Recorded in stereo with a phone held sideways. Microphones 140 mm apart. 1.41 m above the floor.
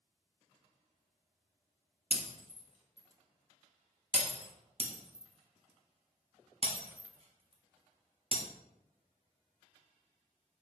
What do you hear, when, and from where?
2.1 s breaking glass: 45° left (ahead or behind), 1.4 m
4.8 s breaking glass: 40° right (ahead or behind), 1.1 m